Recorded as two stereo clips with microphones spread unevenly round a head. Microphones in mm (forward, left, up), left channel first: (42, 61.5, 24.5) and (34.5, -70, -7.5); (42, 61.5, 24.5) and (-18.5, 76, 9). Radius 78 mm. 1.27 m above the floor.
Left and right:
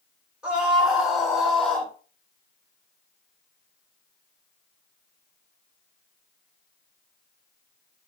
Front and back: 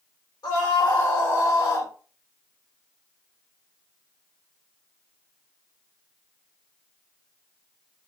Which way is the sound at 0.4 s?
10° right.